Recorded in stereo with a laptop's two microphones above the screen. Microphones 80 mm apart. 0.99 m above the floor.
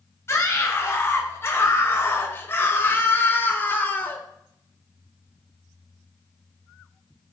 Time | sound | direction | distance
0.3 | a scream | 35° left (ahead or behind) | 6.5 m